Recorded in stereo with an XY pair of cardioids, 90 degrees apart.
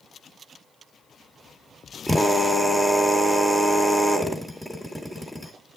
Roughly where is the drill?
Ahead.